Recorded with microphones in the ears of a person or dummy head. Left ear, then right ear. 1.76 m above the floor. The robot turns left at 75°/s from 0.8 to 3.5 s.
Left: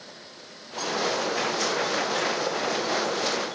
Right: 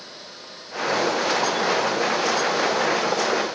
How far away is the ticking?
No ticking in this recording.